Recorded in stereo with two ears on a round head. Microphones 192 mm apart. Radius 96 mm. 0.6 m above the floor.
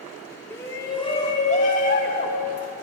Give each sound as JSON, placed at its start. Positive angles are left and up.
{"t": 0.5, "sound": "a shout", "side_deg": 10, "distance_m": 1.3}